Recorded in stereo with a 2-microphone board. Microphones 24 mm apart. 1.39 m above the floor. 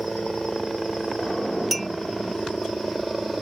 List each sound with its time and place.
0.0 s a helicopter: 5° right (ahead or behind)
1.7 s a clink: centre (ahead or behind)